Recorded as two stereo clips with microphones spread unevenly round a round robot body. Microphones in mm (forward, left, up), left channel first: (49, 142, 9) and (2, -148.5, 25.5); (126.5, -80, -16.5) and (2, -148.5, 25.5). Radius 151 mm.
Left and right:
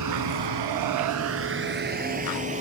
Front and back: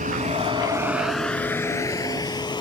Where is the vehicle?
135° right; by 2.6 s 30° right.